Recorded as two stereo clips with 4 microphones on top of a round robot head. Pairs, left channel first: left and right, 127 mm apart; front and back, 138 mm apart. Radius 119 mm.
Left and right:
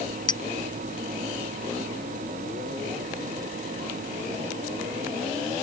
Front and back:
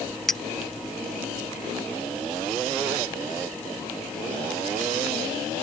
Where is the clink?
85° left.